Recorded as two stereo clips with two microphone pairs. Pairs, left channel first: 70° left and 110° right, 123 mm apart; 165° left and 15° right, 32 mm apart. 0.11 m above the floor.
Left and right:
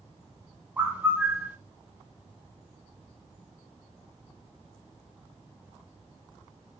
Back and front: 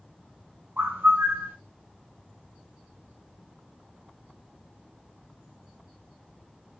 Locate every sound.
0.8 s a bird: 30° right, 1.9 m